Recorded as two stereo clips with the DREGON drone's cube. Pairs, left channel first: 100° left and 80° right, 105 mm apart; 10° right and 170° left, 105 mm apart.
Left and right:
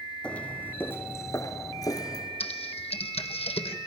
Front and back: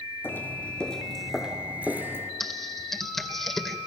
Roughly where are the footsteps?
Ahead left.